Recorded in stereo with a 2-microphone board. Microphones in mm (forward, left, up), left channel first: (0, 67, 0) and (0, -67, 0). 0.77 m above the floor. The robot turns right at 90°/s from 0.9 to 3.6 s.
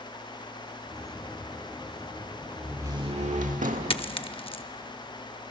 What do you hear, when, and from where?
2.6 s a door slam: straight behind, 1.4 m; by 4.0 s 90° right, 1.4 m
3.9 s a dropped coin: 45° left (ahead or behind), 0.6 m